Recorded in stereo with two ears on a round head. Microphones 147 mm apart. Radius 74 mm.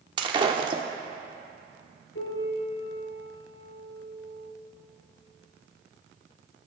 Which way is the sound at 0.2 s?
30° right (ahead or behind).